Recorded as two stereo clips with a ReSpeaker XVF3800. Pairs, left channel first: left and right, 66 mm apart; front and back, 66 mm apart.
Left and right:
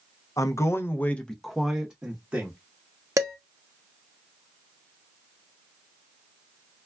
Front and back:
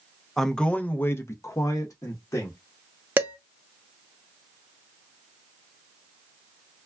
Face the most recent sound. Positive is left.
turn(degrees=-120)